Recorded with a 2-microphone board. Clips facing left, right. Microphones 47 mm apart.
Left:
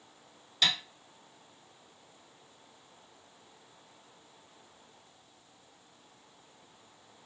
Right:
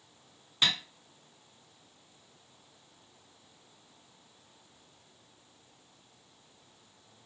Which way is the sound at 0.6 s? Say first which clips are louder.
Even; 30° right (ahead or behind).